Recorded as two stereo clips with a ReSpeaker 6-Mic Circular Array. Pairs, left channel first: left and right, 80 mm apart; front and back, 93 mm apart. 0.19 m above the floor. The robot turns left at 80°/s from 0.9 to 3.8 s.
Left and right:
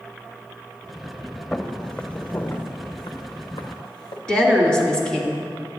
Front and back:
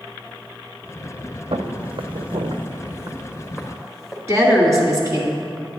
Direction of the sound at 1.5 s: 175° left.